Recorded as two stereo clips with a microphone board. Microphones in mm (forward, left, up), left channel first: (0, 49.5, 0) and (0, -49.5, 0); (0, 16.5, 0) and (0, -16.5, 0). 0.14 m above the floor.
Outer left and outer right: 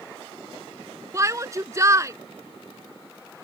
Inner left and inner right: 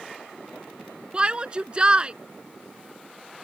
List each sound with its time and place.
1.1 s a shout: 30° right (ahead or behind)